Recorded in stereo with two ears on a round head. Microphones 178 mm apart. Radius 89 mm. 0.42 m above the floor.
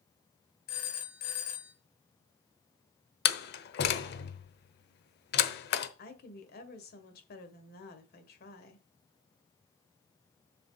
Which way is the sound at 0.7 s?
45° left (ahead or behind).